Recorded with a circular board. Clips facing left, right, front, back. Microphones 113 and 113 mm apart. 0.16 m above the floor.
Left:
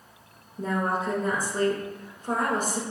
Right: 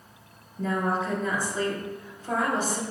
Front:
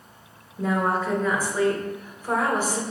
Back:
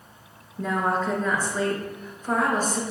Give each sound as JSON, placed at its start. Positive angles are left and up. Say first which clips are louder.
{"t": 0.6, "sound": "a woman speaking", "louder": "even, front 1 dB", "azimuth_deg": 80, "distance_m": 1.5}